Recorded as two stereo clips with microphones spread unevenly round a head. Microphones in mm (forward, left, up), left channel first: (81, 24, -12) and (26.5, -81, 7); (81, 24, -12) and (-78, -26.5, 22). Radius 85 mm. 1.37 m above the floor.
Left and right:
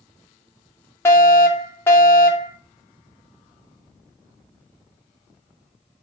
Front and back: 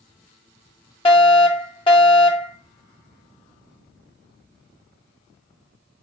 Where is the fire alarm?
20° left, 1.2 m.